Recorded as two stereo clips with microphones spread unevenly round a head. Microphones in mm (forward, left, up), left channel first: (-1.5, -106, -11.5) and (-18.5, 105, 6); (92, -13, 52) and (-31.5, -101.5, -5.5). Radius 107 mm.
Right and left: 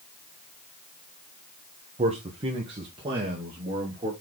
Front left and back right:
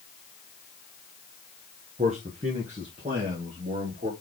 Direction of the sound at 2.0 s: 160° left.